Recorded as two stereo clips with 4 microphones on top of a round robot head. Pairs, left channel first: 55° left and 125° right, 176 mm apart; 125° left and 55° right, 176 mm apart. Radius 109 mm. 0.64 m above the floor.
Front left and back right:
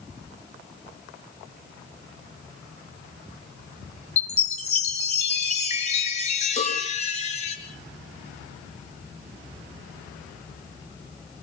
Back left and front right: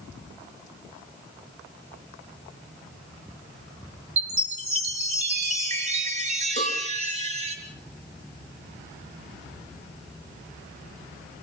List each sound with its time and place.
4.2 s a chime: straight ahead, 3.5 m
6.6 s a cowbell: 20° right, 6 m